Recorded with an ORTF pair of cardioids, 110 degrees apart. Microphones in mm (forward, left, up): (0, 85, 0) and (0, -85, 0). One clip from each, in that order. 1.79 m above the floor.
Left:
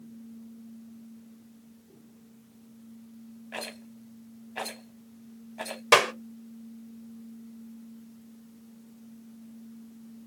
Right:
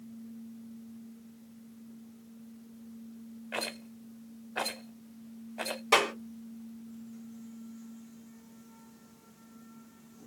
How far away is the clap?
About 1.1 m.